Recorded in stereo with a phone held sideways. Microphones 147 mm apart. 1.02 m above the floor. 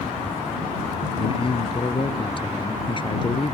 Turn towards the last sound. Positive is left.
turn(degrees=35)  # may be behind; listen again after turning